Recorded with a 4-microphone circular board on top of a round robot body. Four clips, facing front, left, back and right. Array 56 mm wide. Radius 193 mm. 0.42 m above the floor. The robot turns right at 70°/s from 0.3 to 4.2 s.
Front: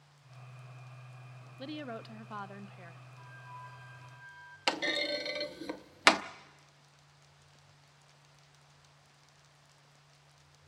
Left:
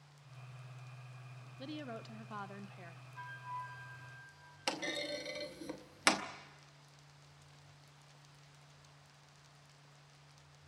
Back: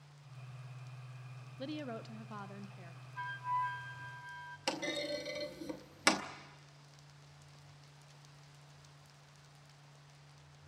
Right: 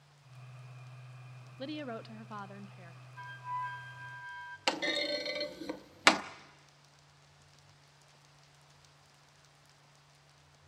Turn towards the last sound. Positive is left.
turn(degrees=-30)